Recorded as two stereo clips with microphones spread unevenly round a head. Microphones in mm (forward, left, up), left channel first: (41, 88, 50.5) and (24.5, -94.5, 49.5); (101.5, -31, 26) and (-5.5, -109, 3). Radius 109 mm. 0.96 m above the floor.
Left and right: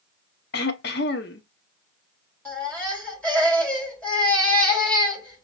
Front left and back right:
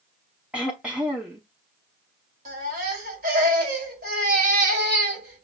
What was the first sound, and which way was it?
Throat clearing, 125° left.